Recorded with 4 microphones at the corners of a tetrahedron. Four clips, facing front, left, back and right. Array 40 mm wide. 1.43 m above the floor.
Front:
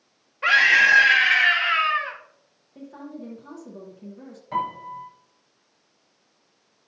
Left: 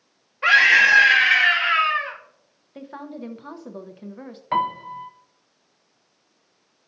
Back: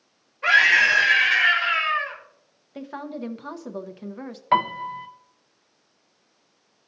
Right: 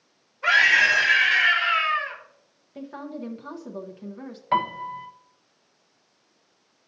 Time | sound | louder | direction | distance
0.4 | a scream | left 3 dB, even | 65° left | 2.5 m
2.8 | a woman speaking | even, back 5 dB | 155° left | 0.9 m
4.5 | a piano | left 1 dB, back 6 dB | 170° left | 0.6 m